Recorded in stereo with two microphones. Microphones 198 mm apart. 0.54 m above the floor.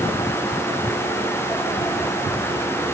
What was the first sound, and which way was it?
Only background noise.